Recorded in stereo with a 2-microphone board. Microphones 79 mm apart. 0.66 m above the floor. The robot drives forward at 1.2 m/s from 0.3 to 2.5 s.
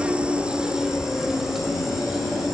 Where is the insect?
15° right (ahead or behind), 1.1 m; by 2.5 s 5° right (ahead or behind), 3.5 m.